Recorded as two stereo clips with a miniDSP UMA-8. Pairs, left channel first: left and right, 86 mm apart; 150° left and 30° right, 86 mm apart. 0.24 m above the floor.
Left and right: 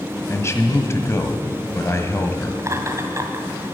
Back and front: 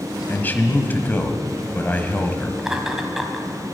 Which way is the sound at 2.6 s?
110° right.